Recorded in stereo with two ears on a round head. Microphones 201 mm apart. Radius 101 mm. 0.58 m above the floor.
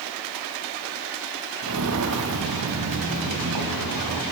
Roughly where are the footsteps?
Right.